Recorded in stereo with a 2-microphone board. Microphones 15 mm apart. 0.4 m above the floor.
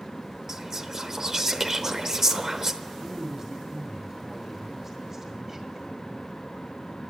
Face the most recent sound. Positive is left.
turn(degrees=-25)  # may be behind; listen again after turning